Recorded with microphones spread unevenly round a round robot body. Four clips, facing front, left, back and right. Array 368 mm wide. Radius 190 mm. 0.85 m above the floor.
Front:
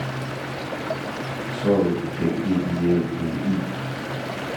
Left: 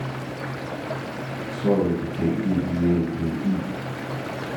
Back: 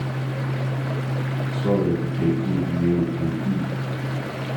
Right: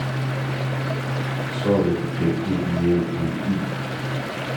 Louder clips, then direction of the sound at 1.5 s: Right 1 dB, front 2 dB; 125° left.